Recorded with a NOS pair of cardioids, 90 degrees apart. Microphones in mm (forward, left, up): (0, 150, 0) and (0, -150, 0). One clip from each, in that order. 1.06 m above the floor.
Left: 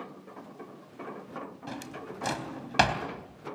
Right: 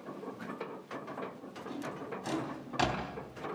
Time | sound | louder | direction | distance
1.7 | a drawer | even | 65° left | 3.5 m